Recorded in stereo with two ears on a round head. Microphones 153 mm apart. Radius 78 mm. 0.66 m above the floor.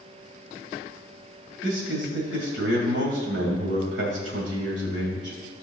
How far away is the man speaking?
About 3 m.